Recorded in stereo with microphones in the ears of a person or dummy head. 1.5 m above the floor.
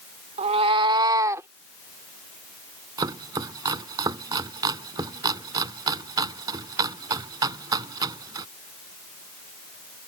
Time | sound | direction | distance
0.4 | a cat meowing | 35° right (ahead or behind) | ?
3.0 | chopping | 20° right (ahead or behind) | ?